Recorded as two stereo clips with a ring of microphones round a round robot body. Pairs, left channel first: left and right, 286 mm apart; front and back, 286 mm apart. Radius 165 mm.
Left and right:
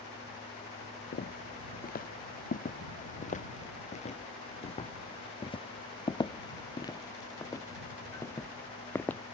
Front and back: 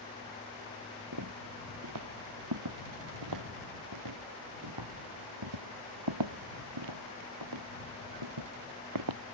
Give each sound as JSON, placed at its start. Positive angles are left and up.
{"t": 1.1, "sound": "footsteps", "azimuth_deg": 145}